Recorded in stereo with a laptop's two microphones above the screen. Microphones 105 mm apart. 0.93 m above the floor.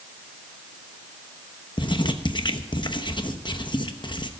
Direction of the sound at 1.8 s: 45° left (ahead or behind).